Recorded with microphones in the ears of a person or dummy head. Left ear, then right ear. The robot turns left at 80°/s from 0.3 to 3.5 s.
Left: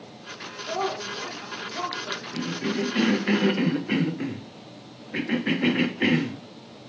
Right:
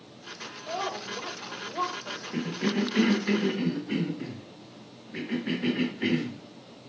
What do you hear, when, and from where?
0.7 s a woman speaking: 5° right, 1.0 m; by 2.2 s 130° right, 1.0 m
2.3 s a cough: 65° right (ahead or behind), 0.5 m; by 6.9 s 30° left (ahead or behind), 0.5 m